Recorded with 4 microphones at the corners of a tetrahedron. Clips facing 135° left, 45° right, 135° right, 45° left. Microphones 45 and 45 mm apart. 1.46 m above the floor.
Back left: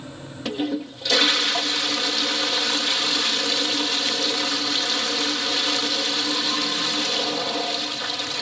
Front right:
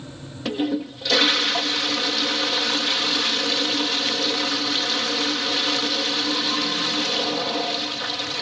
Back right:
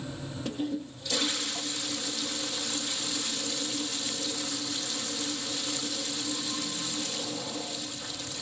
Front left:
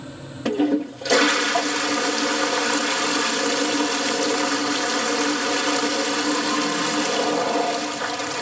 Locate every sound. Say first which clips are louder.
0.5 s a toilet flushing: front right 2 dB, front left 13 dB; 45° left